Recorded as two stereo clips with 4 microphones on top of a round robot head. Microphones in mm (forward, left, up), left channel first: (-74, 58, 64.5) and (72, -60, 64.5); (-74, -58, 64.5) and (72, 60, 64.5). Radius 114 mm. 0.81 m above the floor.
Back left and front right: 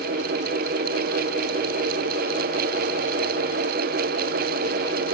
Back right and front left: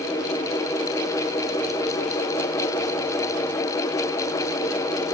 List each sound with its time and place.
Only background noise.